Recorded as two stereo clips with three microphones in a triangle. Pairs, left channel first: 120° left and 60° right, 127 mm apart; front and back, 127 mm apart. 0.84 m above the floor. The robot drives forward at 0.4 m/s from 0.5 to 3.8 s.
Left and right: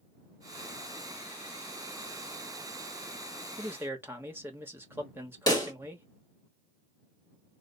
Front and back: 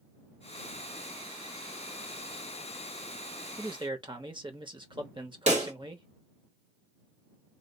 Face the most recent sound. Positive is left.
turn(degrees=175)